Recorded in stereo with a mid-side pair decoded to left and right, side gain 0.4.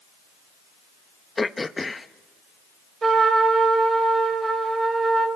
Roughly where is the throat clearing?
Ahead left.